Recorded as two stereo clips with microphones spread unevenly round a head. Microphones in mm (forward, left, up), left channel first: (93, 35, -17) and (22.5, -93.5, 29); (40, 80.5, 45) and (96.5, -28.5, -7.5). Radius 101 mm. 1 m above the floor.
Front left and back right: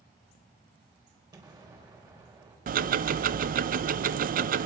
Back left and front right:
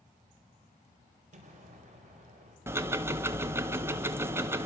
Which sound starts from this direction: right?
Ticking, at 2.7 s.